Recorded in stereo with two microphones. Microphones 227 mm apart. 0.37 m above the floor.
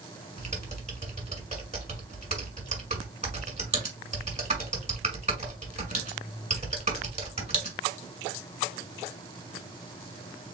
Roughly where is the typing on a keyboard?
Right.